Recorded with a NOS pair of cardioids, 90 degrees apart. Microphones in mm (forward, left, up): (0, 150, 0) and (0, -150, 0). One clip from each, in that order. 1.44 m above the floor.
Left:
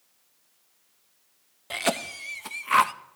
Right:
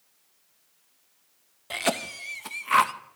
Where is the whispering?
No whispering in this recording.